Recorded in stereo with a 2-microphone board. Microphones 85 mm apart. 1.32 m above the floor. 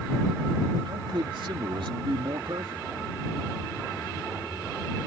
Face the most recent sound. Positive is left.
turn(degrees=-85)